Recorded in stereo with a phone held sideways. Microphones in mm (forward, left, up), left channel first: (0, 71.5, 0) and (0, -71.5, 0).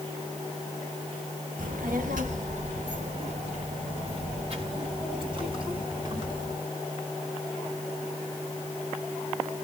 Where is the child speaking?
85° right, 1.2 m; by 6.6 s 35° right (ahead or behind), 4 m.